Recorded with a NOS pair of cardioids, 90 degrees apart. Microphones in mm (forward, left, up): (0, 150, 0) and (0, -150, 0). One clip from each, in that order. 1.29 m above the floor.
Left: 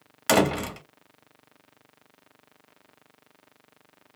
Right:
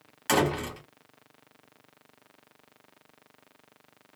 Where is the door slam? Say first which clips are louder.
Left 4 dB; 45° left, 1.0 m.